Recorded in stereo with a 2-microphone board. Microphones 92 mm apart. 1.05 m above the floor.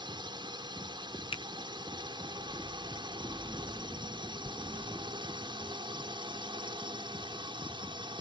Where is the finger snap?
75° left (ahead or behind).